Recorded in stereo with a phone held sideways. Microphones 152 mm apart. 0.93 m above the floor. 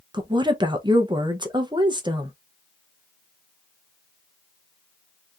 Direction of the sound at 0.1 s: 30° right (ahead or behind).